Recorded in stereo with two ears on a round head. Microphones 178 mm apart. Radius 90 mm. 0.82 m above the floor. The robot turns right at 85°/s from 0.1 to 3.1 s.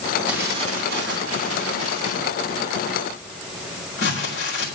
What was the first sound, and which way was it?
Crumpling, 5° right (ahead or behind).